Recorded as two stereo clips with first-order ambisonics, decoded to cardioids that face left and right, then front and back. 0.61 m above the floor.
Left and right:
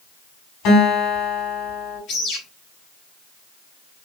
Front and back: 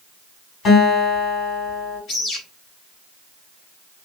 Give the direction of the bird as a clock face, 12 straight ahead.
10 o'clock.